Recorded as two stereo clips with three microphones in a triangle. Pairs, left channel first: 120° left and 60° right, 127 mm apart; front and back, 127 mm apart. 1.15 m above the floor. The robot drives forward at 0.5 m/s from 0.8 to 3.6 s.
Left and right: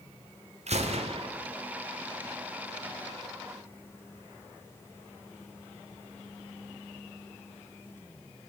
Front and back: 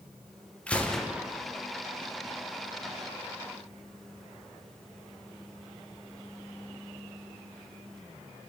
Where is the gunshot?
80° right, 0.7 m; by 1.3 s 100° right, 0.7 m.